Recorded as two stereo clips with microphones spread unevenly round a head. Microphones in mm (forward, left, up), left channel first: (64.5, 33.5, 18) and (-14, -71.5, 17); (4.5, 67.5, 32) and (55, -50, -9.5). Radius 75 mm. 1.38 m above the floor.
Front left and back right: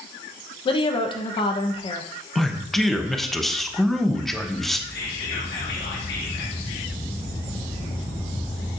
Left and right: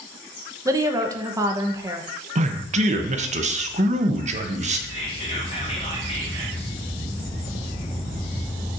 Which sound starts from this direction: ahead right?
A man speaking, at 2.4 s.